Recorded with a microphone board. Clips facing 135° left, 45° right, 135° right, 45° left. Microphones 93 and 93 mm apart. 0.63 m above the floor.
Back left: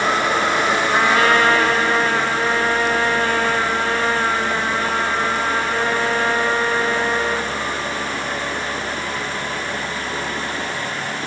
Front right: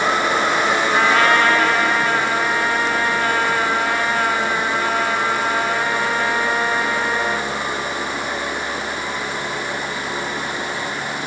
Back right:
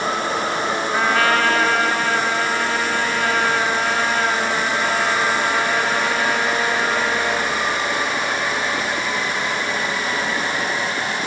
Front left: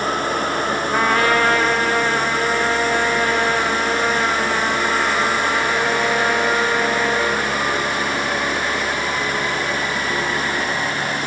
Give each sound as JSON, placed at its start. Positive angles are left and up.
{"t": 0.9, "sound": "a trumpet", "azimuth_deg": 70, "distance_m": 2.5}